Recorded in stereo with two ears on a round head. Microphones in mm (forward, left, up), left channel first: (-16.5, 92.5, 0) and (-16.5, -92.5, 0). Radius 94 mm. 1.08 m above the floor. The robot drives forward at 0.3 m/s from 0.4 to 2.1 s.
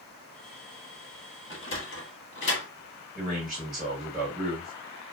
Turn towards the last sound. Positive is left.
turn(degrees=0)  # may be behind; listen again after turning